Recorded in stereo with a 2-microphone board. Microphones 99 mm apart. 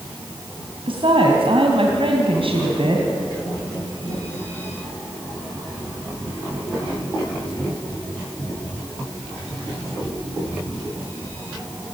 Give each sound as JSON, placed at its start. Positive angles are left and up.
{"t": 0.9, "sound": "a woman speaking", "side_deg": -65, "distance_m": 3.0}